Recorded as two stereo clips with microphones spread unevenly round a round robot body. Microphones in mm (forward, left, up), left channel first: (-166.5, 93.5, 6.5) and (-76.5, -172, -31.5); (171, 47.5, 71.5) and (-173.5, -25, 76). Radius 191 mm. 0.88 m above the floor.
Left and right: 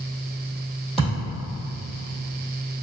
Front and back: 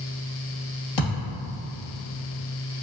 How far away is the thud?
About 1.8 m.